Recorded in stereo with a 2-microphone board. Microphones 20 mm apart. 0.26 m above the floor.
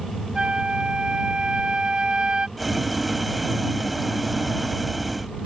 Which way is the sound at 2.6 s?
Centre (ahead or behind).